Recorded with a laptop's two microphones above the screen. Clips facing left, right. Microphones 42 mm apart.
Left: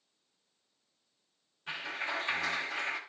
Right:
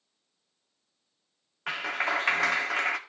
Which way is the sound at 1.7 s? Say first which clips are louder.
Right 8 dB; 80° right.